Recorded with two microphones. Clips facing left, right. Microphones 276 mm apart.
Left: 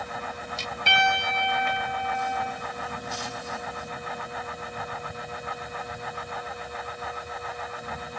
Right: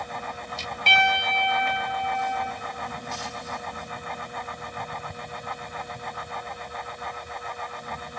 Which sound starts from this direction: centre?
A piano, at 0.9 s.